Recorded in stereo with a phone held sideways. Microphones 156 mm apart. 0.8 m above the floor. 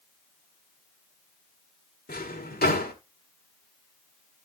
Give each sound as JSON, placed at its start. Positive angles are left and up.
{"t": 2.1, "sound": "a drawer", "side_deg": 85, "distance_m": 1.6}